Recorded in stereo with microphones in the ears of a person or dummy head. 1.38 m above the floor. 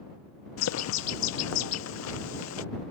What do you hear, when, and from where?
0.6 s a bird: 75° left (ahead or behind)